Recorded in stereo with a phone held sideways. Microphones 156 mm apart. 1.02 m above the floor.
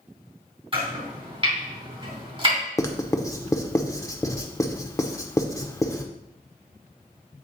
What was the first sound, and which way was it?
Chopping, 35° right (ahead or behind).